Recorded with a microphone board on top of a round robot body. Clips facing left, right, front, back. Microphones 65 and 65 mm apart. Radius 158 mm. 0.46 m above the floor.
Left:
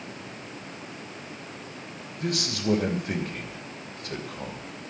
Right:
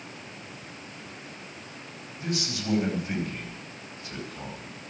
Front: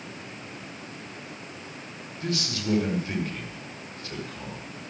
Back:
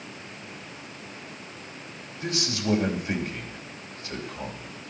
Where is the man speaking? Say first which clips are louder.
Left 3 dB, back 1 dB; 110° left, 3 m.